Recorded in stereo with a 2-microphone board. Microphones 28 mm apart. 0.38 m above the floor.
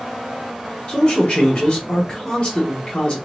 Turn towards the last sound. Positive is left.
turn(degrees=30)  # may be behind; listen again after turning